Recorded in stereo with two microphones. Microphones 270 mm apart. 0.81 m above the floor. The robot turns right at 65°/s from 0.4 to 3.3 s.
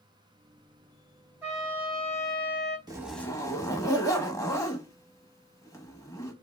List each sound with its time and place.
1.4 s a trumpet: 10° right, 1.1 m; by 2.8 s 80° left, 1.1 m
2.9 s a zipper: 15° right (ahead or behind), 0.7 m; by 6.3 s 10° left (ahead or behind), 0.7 m